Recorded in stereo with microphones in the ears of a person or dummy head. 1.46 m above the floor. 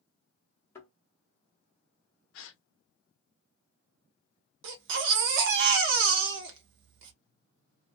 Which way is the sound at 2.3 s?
70° left (ahead or behind).